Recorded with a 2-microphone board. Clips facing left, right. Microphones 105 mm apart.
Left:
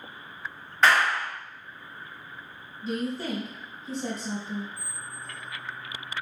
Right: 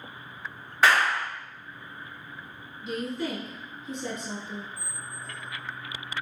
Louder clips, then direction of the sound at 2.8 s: Left 1 dB; 35° left (ahead or behind).